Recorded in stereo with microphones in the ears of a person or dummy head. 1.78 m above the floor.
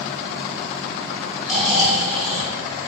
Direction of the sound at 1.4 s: Centre (ahead or behind).